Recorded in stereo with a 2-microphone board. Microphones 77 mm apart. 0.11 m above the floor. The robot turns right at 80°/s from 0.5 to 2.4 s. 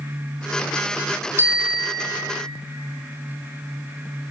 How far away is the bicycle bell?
About 3 m.